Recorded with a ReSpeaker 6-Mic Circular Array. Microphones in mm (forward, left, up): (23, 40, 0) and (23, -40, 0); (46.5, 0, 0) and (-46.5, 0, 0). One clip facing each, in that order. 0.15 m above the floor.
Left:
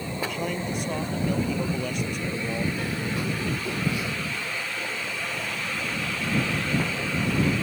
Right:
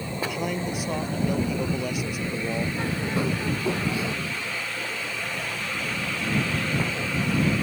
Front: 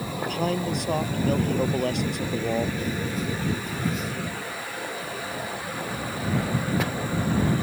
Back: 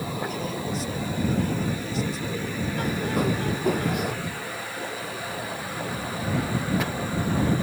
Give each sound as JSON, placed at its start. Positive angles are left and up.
{"t": 0.2, "sound": "a man speaking", "azimuth_deg": -5}
{"t": 2.8, "sound": "a bird", "azimuth_deg": -150}